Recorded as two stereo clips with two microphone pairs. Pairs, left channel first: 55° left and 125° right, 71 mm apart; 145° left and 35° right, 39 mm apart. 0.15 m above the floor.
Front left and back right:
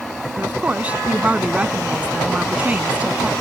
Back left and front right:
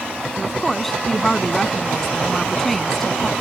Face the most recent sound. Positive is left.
turn(degrees=-150)